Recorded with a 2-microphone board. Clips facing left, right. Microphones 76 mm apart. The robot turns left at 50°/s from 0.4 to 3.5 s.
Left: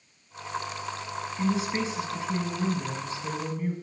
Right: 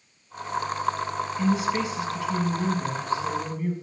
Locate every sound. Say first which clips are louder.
1.4 s a woman speaking: right 3 dB; 110° left, 1.1 m; by 3.7 s 5° left, 1.1 m